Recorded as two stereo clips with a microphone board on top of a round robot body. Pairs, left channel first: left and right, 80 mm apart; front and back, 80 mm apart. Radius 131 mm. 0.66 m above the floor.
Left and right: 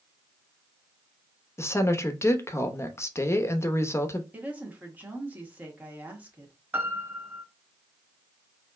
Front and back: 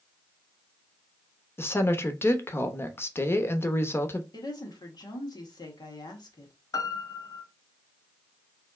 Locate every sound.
1.6 s a woman speaking: 50° left, 0.9 m
4.3 s a woman speaking: 20° right, 1.8 m
6.7 s a piano: 25° right, 1.1 m